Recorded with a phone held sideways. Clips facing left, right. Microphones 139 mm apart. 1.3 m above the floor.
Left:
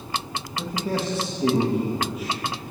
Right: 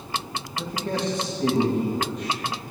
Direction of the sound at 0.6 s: 5° left (ahead or behind).